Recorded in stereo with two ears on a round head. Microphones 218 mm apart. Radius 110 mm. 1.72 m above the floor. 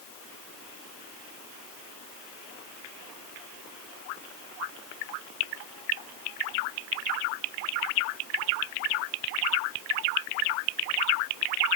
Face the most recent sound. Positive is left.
No sound to turn to.